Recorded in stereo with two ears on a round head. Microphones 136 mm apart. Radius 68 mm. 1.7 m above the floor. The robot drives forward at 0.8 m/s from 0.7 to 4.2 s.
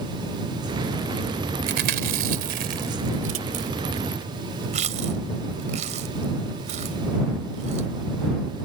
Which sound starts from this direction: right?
Chewing, at 1.7 s.